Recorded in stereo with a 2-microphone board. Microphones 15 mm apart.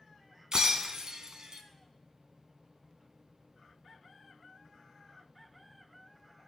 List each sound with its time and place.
0.5 s breaking glass: 45° right (ahead or behind), 0.9 m